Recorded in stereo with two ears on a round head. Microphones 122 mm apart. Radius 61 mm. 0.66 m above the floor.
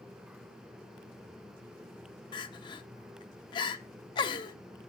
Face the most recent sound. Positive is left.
turn(degrees=35)  # may be behind; listen again after turning